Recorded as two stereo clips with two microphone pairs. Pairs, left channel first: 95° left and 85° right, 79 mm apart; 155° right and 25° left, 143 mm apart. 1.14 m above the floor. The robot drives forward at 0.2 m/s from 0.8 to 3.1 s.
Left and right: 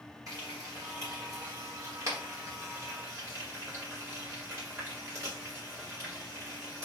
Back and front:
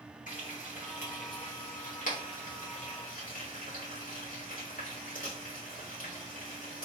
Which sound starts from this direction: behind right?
Frying, at 0.3 s.